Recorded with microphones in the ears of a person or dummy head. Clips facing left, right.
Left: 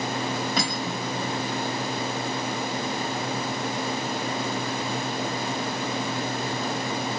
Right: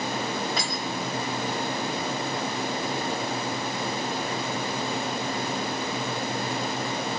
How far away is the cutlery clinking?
About 6 m.